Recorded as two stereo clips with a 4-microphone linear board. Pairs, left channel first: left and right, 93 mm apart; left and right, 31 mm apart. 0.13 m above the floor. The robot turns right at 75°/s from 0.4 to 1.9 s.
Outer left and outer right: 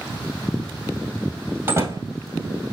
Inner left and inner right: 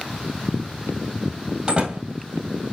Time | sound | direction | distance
1.7 | a door slam | 25° right (ahead or behind) | 2.5 m